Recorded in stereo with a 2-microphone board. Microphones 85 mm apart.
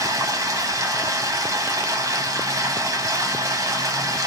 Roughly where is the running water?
Right.